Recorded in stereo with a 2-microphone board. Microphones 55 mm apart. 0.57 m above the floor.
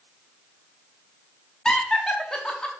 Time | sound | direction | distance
1.6 | laughter | 15° left (ahead or behind) | 0.8 m